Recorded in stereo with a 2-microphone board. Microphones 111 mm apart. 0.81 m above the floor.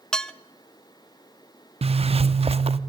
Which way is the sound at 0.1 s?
5° left (ahead or behind).